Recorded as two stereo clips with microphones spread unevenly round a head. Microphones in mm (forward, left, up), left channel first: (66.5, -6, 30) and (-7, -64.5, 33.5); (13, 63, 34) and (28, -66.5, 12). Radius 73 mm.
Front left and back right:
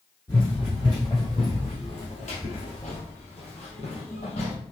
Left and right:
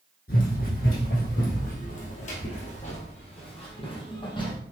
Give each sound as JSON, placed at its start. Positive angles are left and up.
{"t": 0.3, "sound": "running footsteps", "azimuth_deg": 110, "distance_m": 3.0}